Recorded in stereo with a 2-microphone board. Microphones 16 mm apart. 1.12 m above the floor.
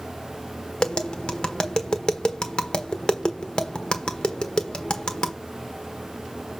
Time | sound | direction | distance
0.8 | tapping | 65° left (ahead or behind) | 1.2 m